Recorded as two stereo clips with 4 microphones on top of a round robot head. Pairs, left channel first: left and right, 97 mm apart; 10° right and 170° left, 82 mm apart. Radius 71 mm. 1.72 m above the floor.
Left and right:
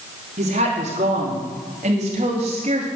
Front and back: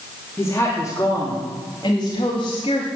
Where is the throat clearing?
I don't hear throat clearing.